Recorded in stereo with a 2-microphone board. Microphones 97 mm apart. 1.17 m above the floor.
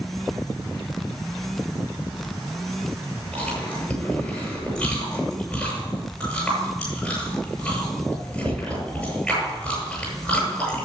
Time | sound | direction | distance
3.3 | chewing | 10° left (ahead or behind) | 8.5 m